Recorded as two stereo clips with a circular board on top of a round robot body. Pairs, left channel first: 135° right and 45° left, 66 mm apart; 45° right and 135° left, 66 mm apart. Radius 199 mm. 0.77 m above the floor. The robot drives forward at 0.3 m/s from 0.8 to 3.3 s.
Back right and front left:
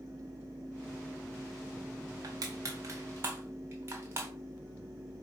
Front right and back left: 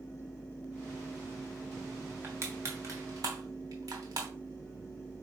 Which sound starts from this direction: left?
Crushing, at 2.2 s.